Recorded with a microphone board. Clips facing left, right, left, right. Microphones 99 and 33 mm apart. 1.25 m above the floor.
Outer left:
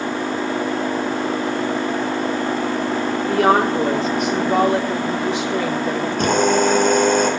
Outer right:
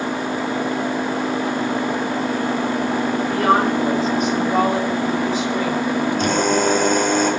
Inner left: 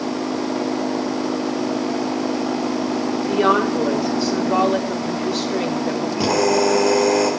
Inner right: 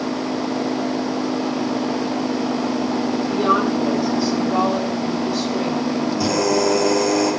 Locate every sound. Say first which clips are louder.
3.3 s a woman speaking: outer left 2 dB, inner left 2 dB; 80° left, 4 m
6.2 s a drill: outer left 4 dB, inner left 3 dB; 55° left (ahead or behind), 4 m